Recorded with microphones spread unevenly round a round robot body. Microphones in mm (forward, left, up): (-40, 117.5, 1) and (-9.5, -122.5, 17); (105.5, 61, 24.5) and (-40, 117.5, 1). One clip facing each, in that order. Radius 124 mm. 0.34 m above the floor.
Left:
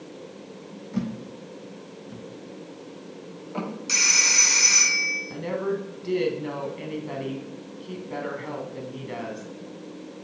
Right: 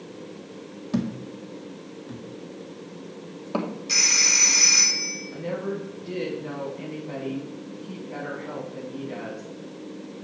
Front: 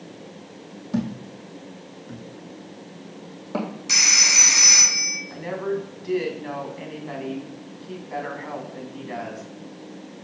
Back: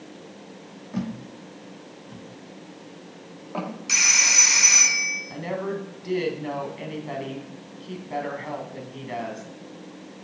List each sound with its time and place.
0.9 s a thud: 70° right, 2 m
3.9 s a phone ringing: 25° left, 3 m
5.3 s a woman speaking: 100° left, 2.5 m